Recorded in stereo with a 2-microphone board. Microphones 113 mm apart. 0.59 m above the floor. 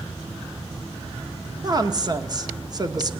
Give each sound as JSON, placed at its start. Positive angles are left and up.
{"t": 1.6, "sound": "a woman speaking", "side_deg": -35, "distance_m": 0.9}